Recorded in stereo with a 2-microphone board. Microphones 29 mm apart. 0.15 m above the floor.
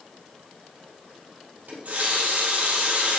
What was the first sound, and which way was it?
A running tap, 60° right (ahead or behind).